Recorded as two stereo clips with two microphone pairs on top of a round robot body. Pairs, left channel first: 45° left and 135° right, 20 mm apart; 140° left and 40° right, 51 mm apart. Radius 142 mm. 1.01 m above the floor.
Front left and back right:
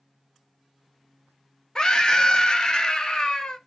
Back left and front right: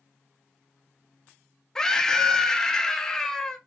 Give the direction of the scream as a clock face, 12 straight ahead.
10 o'clock.